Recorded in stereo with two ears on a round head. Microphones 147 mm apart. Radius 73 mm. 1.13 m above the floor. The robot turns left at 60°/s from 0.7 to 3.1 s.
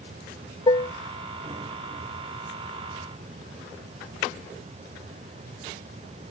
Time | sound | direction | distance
0.7 | dishes clattering | 30° left (ahead or behind) | ?